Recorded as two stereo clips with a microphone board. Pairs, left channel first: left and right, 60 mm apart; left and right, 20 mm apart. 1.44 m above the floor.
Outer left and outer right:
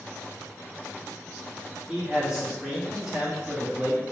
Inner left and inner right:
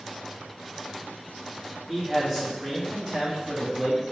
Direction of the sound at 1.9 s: 10° right (ahead or behind).